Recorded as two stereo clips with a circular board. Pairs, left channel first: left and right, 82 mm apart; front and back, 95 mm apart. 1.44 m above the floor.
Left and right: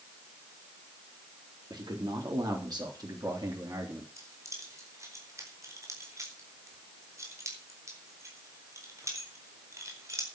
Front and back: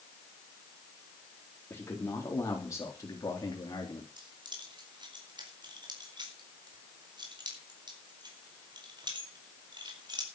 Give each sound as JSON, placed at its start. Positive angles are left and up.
{"t": 1.7, "sound": "a man speaking", "azimuth_deg": -65, "distance_m": 4.0}
{"t": 4.2, "sound": "keys jangling", "azimuth_deg": -140, "distance_m": 4.5}